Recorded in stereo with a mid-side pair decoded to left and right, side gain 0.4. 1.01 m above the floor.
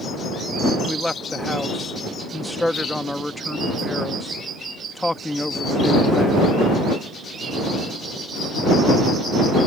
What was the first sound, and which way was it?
A man speaking, 15° left.